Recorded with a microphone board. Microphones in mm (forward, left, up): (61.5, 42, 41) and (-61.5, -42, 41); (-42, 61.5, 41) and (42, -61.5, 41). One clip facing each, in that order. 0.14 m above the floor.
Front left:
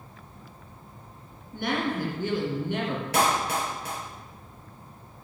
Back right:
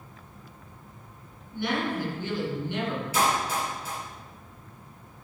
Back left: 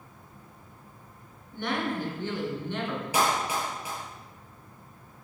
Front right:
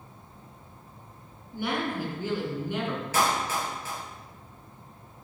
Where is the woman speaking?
25° left, 2.5 m.